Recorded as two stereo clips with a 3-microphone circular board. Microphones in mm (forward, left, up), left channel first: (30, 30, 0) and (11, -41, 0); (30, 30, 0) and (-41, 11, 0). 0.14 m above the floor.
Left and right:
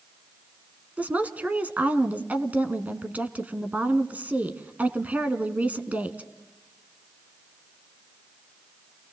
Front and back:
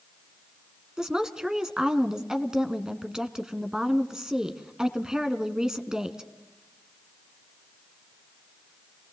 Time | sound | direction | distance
1.0 | a woman speaking | 100° right | 1.1 m